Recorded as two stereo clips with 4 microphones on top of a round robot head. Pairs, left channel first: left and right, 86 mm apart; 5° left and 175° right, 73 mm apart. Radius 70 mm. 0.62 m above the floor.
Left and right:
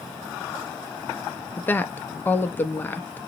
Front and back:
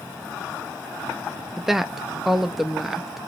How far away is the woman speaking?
About 0.6 m.